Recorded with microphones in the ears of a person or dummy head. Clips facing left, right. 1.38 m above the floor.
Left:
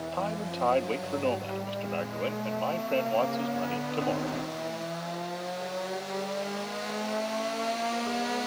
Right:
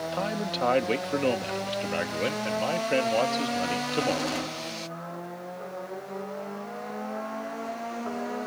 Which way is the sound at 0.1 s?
20° right (ahead or behind).